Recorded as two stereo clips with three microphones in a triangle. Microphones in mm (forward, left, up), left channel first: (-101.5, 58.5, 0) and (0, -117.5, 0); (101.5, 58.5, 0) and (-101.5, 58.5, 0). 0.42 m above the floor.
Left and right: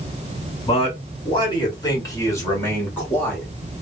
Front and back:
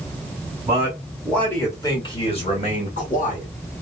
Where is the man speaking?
120° left, 1.2 m; by 3.5 s 40° left, 2 m.